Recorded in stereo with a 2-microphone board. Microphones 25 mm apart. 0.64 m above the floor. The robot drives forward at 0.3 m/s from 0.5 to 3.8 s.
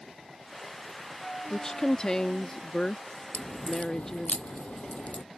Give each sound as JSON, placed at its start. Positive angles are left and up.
{"t": 1.5, "sound": "a woman speaking", "side_deg": 25}
{"t": 3.3, "sound": "a crack", "side_deg": 65}